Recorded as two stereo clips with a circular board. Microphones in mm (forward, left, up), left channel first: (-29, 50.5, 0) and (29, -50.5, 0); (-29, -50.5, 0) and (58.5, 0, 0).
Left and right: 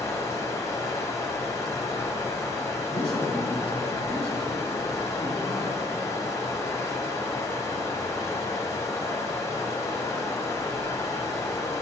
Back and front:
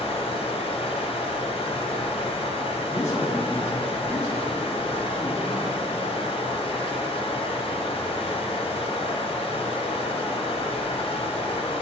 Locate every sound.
0.0 s running water: 175° right, 0.8 m
2.9 s a man speaking: 90° right, 2 m